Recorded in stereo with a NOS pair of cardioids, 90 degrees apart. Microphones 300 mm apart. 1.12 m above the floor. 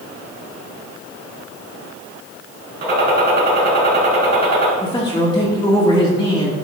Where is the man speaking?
15° left, 1.7 m.